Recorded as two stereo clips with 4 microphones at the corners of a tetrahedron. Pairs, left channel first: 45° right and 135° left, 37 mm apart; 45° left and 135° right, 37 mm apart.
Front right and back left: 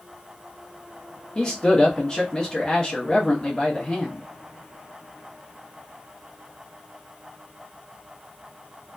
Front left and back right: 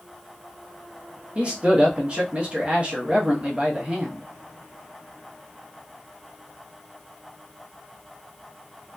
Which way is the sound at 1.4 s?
100° right.